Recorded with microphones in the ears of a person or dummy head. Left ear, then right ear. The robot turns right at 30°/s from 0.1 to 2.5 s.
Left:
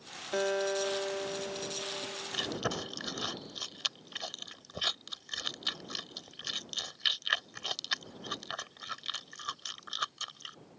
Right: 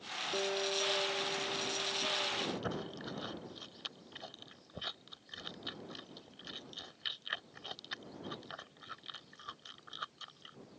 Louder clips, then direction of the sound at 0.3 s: Left 5 dB; 125° left.